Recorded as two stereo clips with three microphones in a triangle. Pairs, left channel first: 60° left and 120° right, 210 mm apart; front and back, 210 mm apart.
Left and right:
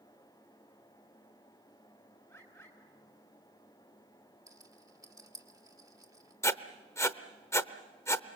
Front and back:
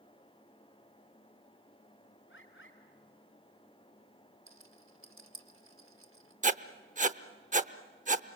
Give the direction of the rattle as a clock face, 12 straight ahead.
6 o'clock.